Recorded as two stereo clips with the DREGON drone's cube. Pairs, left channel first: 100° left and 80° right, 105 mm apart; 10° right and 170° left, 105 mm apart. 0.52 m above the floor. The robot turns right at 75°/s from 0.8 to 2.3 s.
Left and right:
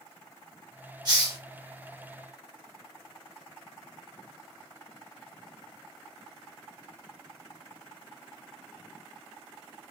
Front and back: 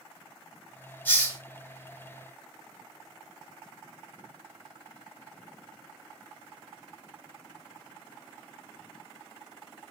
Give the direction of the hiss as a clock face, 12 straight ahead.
3 o'clock.